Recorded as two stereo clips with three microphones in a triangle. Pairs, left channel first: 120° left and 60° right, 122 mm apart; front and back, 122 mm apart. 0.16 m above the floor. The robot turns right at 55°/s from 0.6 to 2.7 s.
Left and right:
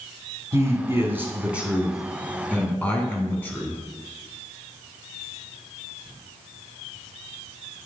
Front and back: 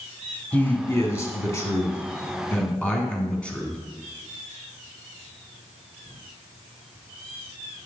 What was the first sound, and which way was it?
A man speaking, 50° right.